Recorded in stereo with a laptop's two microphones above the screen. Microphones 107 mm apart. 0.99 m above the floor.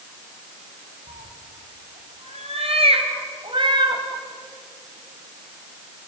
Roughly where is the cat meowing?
Right.